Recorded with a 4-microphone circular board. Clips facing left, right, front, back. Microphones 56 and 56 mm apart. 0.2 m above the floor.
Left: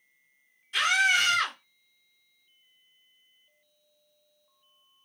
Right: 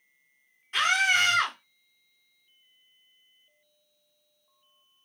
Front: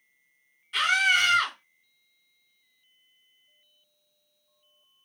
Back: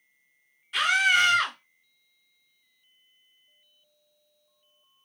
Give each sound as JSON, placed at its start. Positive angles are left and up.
{"t": 0.7, "sound": "a scream", "azimuth_deg": -95, "distance_m": 1.4}